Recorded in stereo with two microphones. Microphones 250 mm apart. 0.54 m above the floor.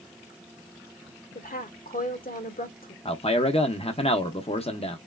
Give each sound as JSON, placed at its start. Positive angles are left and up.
{"t": 1.4, "sound": "a woman speaking", "side_deg": 35, "distance_m": 1.2}
{"t": 3.0, "sound": "a man speaking", "side_deg": 25, "distance_m": 0.7}